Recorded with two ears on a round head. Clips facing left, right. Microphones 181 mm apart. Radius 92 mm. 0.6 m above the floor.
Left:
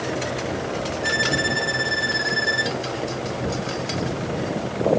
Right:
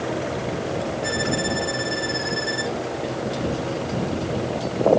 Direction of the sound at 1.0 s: 20° left (ahead or behind).